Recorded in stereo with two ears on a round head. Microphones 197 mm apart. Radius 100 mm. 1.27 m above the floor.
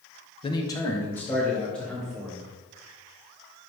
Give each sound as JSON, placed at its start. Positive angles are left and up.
{"t": 0.4, "sound": "a man speaking", "side_deg": 25, "distance_m": 1.0}